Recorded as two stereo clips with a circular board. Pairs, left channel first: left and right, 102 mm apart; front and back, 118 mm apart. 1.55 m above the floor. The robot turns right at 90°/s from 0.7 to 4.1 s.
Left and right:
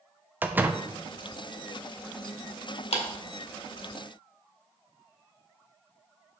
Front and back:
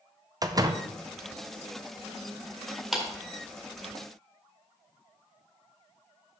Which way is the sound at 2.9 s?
90° left.